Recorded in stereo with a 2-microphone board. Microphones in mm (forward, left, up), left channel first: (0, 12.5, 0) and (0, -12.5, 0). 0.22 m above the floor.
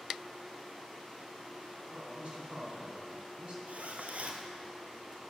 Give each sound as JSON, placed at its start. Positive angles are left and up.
{"t": 1.9, "sound": "a man speaking", "side_deg": -45, "distance_m": 2.0}
{"t": 3.7, "sound": "a zipper", "side_deg": -80, "distance_m": 0.9}